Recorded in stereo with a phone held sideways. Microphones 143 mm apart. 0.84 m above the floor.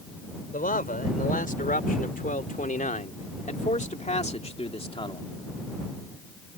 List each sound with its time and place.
0.5 s a man speaking: 75° left (ahead or behind); by 5.2 s 35° left (ahead or behind)